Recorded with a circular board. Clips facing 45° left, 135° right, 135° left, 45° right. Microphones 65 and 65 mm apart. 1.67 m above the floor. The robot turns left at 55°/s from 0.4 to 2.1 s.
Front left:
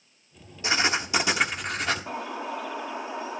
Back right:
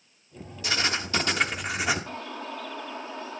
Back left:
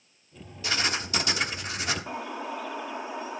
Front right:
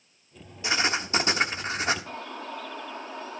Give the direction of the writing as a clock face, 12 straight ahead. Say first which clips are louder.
Front left 3 dB, front right 3 dB; 12 o'clock.